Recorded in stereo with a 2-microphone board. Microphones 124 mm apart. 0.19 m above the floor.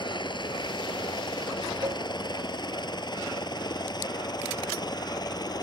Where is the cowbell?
35° right (ahead or behind).